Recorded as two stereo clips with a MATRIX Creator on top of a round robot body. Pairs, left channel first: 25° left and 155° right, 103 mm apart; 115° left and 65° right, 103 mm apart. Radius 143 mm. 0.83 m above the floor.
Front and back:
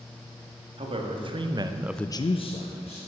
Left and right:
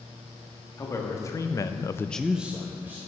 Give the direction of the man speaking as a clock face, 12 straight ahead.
6 o'clock.